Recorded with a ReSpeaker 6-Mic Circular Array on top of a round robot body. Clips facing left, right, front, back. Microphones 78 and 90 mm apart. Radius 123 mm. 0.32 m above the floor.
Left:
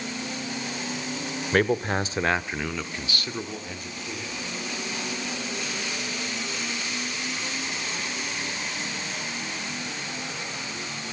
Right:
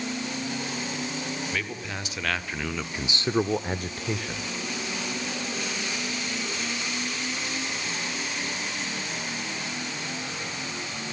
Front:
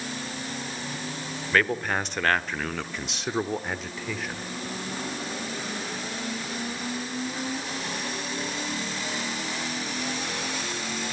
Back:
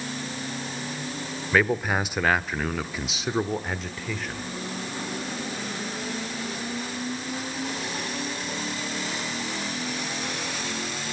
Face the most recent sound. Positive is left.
turn(degrees=-85)